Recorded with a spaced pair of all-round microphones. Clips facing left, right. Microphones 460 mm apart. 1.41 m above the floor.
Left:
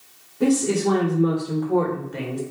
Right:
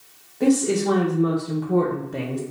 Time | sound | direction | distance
0.4 | a woman speaking | 25° left (ahead or behind) | 1.2 m